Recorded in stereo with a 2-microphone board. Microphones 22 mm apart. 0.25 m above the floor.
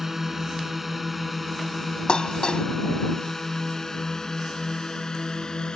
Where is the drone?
15° right (ahead or behind); by 5.8 s 35° left (ahead or behind).